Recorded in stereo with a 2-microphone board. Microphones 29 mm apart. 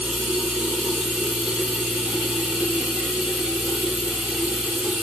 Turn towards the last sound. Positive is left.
turn(degrees=-30)  # may be behind; listen again after turning